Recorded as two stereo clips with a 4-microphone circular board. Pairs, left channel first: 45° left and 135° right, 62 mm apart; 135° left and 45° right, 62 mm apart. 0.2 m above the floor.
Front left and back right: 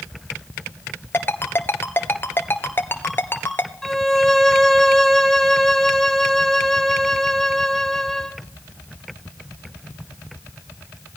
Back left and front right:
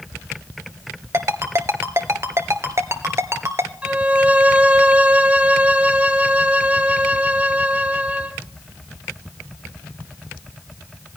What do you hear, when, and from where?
1.1 s a ringtone: 10° right, 1.5 m
3.8 s a violin: 30° right, 1.4 m